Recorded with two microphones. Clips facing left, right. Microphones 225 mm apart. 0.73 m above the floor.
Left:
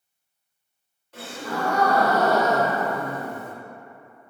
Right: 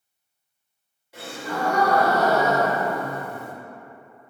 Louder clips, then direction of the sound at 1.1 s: Even; 10° right (ahead or behind).